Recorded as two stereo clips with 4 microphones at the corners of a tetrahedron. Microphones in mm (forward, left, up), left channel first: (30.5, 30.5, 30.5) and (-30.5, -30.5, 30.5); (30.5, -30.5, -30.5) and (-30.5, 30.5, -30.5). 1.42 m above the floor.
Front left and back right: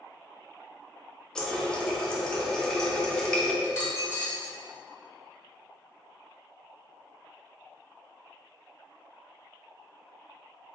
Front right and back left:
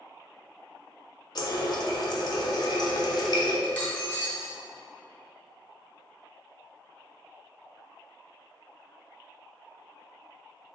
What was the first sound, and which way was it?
A running tap, 35° right.